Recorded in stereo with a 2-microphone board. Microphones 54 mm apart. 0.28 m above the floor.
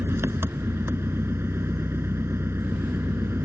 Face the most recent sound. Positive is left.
turn(degrees=-50)  # may be behind; listen again after turning